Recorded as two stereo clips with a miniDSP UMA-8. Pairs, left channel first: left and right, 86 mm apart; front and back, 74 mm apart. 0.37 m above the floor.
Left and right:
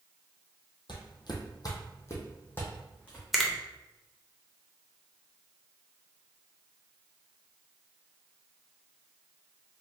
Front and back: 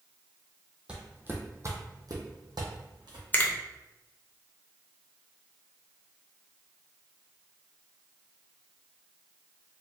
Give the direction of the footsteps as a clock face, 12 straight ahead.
9 o'clock.